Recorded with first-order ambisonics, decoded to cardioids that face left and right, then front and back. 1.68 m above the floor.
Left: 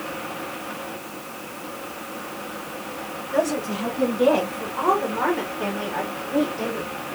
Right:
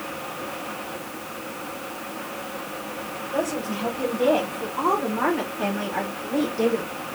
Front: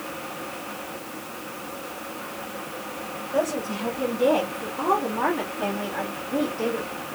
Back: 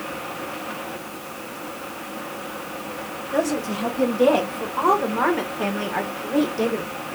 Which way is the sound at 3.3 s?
155° left.